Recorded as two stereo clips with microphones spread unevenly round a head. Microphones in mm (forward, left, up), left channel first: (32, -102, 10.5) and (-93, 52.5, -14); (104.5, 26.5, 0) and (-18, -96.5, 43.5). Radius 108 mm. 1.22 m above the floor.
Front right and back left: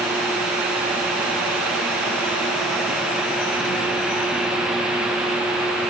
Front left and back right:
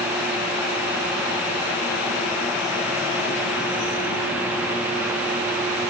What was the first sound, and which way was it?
Only background noise.